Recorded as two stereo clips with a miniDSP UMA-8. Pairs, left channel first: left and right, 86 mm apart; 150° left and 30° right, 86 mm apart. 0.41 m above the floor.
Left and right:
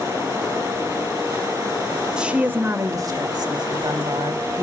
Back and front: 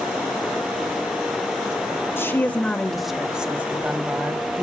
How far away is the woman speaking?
About 1.8 m.